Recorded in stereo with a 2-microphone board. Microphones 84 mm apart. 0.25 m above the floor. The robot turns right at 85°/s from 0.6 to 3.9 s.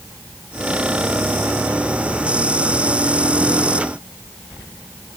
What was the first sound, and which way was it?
Only background noise.